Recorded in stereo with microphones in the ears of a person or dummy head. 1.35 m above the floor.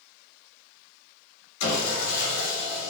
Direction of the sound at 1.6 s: 70° left (ahead or behind).